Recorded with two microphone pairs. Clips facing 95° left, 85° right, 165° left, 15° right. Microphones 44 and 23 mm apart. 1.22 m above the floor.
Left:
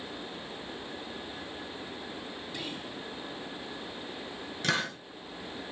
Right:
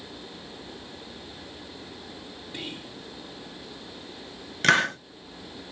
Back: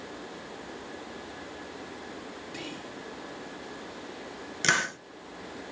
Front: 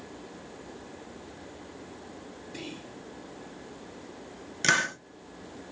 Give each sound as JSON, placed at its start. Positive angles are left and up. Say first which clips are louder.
{"t": 2.5, "sound": "whispering", "louder": "right 3 dB, even", "azimuth_deg": -145, "distance_m": 1.7}
{"t": 4.6, "sound": "a hiss", "louder": "right 10 dB, front 1 dB", "azimuth_deg": -110, "distance_m": 0.5}